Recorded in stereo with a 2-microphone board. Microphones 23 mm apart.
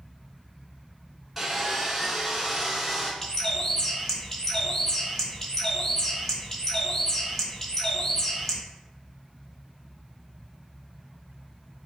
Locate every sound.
1.4 s sawing: 10° right (ahead or behind), 1.0 m
3.2 s a bird: 15° left (ahead or behind), 1.0 m